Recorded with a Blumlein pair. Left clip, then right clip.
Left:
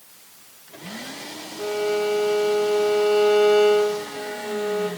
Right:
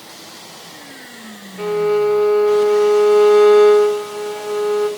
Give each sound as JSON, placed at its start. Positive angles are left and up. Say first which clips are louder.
{"t": 1.6, "sound": "a violin", "louder": "right 7 dB", "azimuth_deg": -65, "distance_m": 1.8}